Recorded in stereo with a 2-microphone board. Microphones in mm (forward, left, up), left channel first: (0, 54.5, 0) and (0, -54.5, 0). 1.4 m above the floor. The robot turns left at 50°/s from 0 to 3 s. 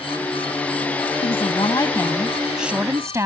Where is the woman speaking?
65° left; by 3.3 s 25° right.